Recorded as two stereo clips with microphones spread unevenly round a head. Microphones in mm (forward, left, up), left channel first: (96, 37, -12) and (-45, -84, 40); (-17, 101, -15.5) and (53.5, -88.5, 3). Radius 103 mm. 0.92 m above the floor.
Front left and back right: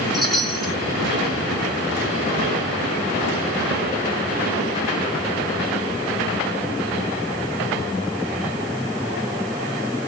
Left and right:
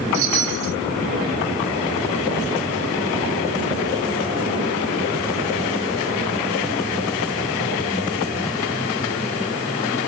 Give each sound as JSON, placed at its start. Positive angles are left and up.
{"t": 0.1, "sound": "a chime", "azimuth_deg": -50, "distance_m": 1.3}